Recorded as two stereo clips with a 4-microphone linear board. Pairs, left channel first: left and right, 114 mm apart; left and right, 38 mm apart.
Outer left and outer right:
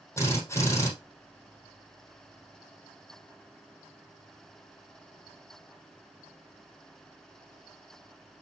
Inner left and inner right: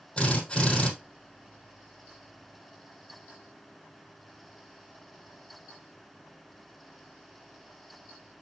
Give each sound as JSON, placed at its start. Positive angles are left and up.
{"t": 0.2, "sound": "a drill", "side_deg": 20, "distance_m": 3.5}